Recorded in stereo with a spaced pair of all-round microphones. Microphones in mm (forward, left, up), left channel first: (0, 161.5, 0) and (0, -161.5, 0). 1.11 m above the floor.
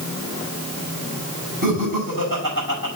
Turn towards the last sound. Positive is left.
turn(degrees=-90)